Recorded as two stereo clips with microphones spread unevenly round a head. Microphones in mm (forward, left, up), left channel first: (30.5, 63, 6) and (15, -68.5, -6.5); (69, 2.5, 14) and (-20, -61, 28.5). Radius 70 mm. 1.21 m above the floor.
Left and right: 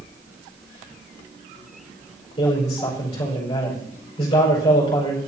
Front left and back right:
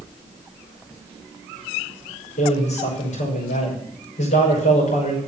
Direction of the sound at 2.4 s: 25° left.